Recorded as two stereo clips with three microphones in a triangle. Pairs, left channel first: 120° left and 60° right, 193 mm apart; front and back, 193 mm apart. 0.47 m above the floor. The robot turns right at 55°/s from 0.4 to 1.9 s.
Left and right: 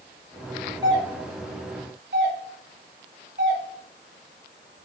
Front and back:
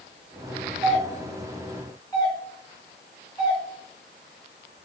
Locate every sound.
0.8 s a doorbell: 130° right, 5.5 m; by 3.6 s 70° right, 5.5 m